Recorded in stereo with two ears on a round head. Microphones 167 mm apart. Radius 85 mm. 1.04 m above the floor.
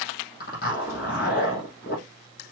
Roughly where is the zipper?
Left.